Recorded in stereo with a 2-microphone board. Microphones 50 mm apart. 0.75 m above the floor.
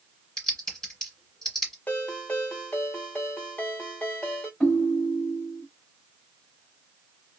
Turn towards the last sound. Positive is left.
turn(degrees=15)  # may be behind; listen again after turning